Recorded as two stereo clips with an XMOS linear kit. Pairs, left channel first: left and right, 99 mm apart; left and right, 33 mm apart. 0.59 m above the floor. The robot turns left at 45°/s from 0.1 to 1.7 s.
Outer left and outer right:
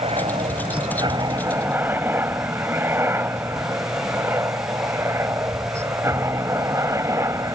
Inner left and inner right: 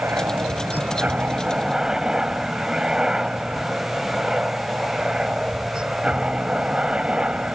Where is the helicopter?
70° right (ahead or behind); by 7.6 s 30° right (ahead or behind).